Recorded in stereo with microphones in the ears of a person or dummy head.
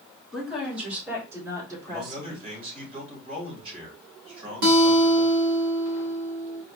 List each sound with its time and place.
0.3 s a woman speaking: centre (ahead or behind), 3 m; by 2.5 s 35° right (ahead or behind), 3.5 m
1.9 s a man speaking: 35° right (ahead or behind), 3.5 m
4.6 s a guitar: 45° right (ahead or behind), 1.4 m